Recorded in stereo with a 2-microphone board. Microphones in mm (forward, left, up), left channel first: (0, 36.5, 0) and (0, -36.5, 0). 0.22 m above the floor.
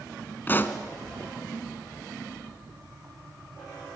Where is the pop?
30° left (ahead or behind), 1.2 m.